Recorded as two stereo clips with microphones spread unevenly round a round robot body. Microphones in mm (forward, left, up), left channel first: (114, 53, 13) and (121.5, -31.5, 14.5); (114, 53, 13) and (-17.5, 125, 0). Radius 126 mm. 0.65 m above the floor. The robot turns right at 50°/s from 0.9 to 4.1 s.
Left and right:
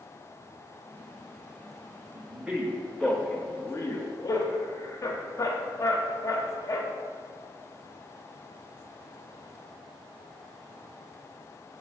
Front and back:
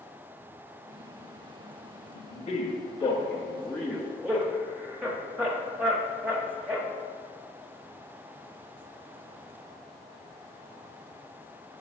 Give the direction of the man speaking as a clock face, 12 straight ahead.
1 o'clock.